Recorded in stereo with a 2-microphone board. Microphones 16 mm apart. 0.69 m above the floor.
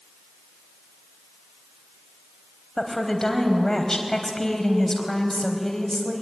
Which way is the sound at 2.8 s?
25° left (ahead or behind).